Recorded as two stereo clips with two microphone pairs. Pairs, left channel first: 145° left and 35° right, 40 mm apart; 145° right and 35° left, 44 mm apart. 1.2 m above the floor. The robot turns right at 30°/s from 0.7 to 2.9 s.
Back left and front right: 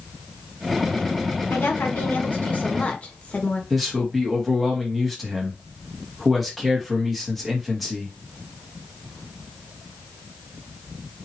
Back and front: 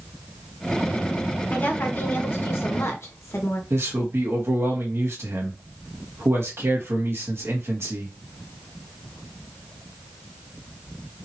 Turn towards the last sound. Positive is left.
turn(degrees=55)